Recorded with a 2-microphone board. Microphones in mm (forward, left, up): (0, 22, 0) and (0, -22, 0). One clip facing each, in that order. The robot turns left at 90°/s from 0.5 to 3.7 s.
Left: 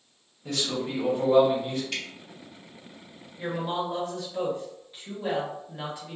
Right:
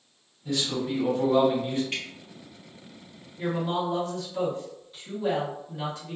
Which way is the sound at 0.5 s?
85° left.